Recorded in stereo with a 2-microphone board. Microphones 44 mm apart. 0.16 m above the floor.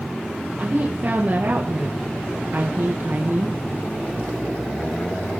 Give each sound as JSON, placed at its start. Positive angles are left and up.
{"t": 0.6, "sound": "a woman speaking", "side_deg": -50, "distance_m": 3.0}